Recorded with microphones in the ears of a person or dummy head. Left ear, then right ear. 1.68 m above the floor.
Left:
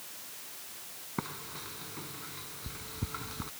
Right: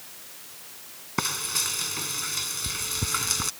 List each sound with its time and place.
1.2 s frying: 75° right (ahead or behind)